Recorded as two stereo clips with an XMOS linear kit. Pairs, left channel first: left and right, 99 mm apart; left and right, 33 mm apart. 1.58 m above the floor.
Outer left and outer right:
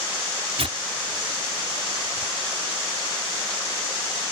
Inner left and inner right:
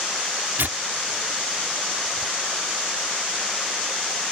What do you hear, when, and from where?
0.6 s tearing paper: 80° right